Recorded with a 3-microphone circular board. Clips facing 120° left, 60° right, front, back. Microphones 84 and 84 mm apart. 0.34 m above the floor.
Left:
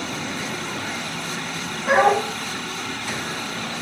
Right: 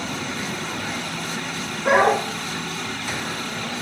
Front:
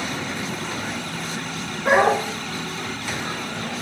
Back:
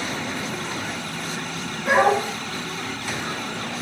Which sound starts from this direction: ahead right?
A dog barking, at 1.9 s.